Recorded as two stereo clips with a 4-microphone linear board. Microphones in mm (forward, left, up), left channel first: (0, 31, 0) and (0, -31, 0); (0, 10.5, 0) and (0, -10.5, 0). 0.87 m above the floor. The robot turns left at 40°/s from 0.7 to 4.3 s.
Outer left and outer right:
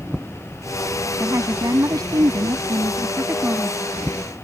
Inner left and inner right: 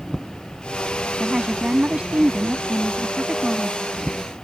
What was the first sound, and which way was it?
A woman speaking, 50° right.